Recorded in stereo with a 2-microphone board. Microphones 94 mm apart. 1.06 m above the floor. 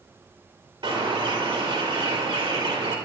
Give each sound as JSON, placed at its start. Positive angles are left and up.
{"t": 0.8, "sound": "a bird", "side_deg": -80, "distance_m": 3.5}